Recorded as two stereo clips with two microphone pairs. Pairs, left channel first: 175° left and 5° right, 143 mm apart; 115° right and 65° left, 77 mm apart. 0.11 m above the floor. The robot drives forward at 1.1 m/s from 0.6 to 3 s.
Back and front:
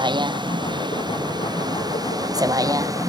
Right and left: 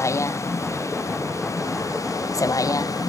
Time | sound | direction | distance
0.0 | a vehicle | 65° right | ?